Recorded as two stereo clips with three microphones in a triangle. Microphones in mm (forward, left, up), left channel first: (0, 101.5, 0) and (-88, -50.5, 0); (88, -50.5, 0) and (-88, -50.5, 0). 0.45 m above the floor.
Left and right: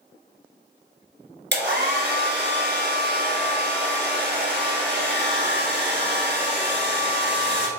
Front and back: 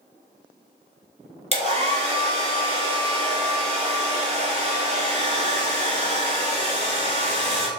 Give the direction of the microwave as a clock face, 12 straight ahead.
I don't hear a microwave.